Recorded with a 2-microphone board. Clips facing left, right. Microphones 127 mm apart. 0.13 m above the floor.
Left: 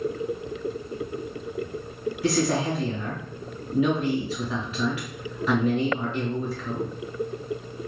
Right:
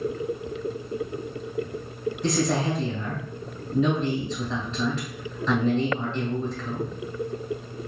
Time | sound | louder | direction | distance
2.2 | a man speaking | left 1 dB | 10° left (ahead or behind) | 1.4 m